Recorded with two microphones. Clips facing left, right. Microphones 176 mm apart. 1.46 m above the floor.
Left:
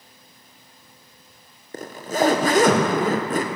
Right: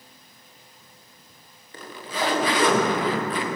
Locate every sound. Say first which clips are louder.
1.7 s a zipper: left 7 dB; 45° left (ahead or behind), 0.9 m